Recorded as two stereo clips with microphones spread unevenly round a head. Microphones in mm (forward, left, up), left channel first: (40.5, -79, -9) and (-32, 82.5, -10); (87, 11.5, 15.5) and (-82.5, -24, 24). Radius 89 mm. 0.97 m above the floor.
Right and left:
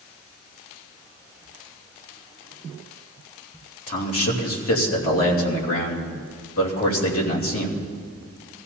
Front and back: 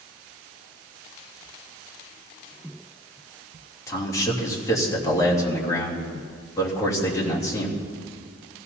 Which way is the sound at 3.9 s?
60° right.